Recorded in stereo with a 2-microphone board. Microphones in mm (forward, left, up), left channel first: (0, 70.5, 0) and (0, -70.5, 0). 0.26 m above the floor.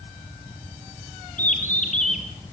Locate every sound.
1.4 s a bird: 65° left (ahead or behind), 3.5 m